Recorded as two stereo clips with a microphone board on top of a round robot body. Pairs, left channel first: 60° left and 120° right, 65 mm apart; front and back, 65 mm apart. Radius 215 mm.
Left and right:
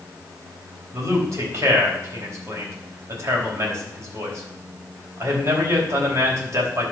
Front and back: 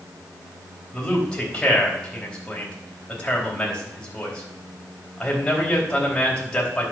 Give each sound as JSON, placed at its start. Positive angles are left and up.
{"t": 0.9, "sound": "a man speaking", "azimuth_deg": -75, "distance_m": 4.0}